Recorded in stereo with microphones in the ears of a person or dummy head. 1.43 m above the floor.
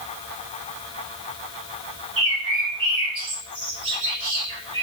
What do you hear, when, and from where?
2.2 s a bird: 30° right (ahead or behind), 1.5 m